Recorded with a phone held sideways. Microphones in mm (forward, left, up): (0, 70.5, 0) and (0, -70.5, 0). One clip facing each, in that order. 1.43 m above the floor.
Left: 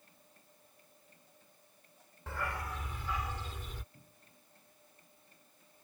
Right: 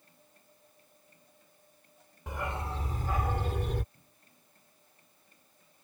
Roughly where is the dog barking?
Centre.